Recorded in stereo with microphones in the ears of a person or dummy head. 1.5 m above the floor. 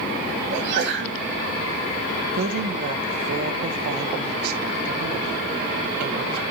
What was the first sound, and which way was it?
A sneeze, 70° right (ahead or behind).